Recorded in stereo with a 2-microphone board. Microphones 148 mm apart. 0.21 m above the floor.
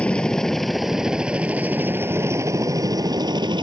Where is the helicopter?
5° left (ahead or behind); by 3.6 s 30° right (ahead or behind).